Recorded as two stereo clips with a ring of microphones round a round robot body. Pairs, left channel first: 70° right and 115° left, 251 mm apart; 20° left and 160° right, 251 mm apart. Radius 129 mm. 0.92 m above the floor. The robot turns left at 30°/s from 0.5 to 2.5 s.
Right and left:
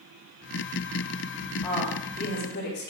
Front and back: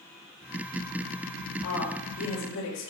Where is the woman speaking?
10° left, 4.5 m; by 2.9 s 15° right, 4.5 m.